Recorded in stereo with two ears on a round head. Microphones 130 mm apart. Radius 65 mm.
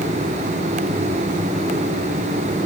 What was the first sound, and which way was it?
Only background noise.